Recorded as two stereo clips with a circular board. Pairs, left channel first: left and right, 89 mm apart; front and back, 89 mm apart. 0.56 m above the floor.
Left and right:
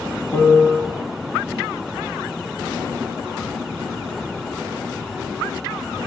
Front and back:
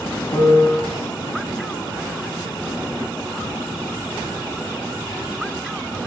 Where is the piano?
25° left, 1.4 m.